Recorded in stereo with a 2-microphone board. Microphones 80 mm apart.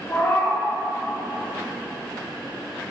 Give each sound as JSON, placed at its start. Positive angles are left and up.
{"t": 0.1, "sound": "a cat meowing", "side_deg": 35, "distance_m": 2.0}